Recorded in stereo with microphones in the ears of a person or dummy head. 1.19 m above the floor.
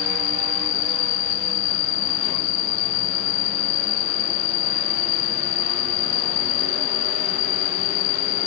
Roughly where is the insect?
Left.